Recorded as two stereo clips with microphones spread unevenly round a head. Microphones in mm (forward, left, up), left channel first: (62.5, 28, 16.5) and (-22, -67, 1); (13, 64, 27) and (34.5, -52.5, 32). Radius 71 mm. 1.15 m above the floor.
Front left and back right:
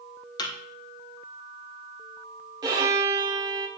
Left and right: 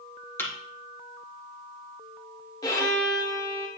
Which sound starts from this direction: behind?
A violin, at 2.6 s.